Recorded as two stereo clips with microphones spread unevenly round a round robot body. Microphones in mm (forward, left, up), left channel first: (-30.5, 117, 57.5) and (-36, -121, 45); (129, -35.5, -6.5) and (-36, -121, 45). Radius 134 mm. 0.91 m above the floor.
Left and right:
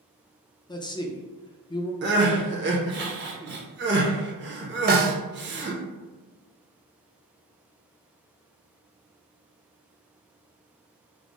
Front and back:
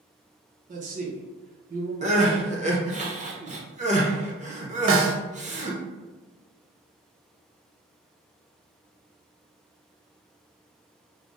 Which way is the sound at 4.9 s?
145° right.